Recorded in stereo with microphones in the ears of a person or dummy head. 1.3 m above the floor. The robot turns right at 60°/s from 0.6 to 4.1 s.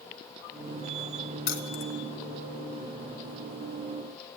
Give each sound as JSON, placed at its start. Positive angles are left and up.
{"t": 1.5, "sound": "keys jangling", "side_deg": 70, "distance_m": 1.1}